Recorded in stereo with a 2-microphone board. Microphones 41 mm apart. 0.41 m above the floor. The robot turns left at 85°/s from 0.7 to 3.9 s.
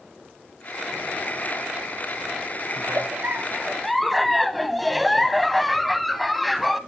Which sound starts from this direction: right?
A giggle, at 2.8 s.